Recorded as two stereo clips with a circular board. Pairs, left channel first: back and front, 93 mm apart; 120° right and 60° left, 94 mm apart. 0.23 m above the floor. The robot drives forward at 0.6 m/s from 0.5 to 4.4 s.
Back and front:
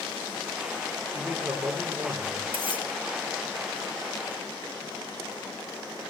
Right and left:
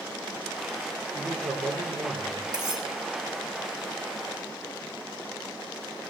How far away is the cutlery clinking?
About 2 m.